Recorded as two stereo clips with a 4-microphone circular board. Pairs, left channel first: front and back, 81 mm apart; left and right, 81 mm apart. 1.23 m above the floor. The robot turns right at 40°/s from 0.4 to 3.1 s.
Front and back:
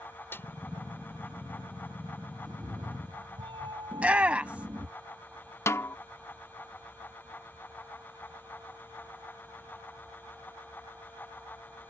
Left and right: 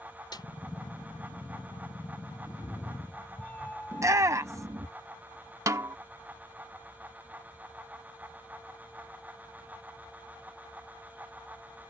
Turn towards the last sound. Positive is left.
turn(degrees=-50)